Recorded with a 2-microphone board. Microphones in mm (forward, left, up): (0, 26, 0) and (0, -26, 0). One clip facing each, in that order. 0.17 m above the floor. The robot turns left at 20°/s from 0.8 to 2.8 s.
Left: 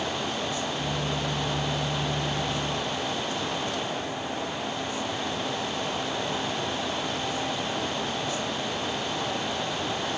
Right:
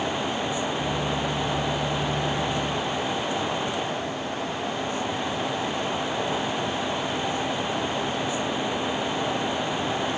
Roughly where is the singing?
No singing in this recording.